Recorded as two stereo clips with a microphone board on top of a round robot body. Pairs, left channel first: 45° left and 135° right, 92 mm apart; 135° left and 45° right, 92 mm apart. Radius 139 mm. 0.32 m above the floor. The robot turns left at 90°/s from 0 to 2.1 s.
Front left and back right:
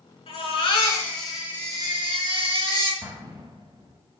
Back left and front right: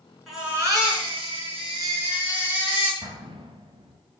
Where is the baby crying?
50° left, 5 m; by 2.9 s 115° right, 5 m.